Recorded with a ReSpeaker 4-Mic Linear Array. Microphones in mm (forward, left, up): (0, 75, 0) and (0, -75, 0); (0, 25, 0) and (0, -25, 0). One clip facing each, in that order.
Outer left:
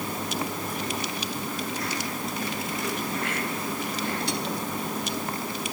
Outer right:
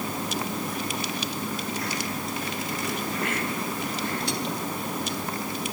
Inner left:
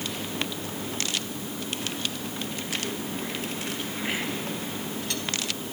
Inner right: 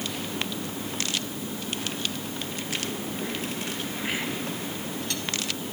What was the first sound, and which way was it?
Only background noise.